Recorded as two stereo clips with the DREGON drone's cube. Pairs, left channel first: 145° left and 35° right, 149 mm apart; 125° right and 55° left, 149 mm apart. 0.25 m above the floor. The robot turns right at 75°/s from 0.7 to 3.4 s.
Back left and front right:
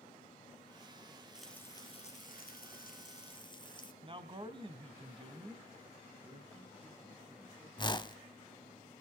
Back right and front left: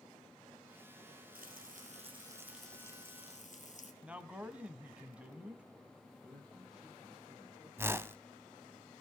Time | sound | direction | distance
1.4 | frying | 50° left | 1.7 m
4.0 | a man speaking | 20° right | 1.2 m
6.2 | a man speaking | 35° right | 8.5 m
7.8 | a whoosh | 115° left | 0.5 m